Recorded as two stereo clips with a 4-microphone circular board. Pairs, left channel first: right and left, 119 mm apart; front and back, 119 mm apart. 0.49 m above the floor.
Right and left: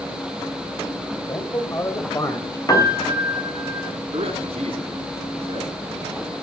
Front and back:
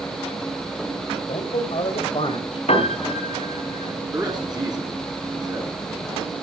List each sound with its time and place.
1.3 s a man speaking: 30° right, 2.5 m
2.7 s a piano: 30° right, 4 m
4.1 s a man speaking: 120° left, 5 m